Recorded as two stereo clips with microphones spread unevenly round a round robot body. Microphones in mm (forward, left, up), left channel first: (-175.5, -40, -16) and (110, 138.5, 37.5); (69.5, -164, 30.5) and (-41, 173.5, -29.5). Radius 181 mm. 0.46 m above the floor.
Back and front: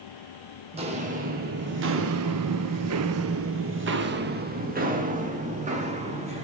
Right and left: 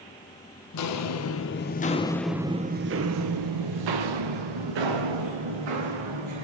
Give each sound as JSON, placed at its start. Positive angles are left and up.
{"t": 0.7, "sound": "footsteps", "azimuth_deg": -40, "distance_m": 1.1}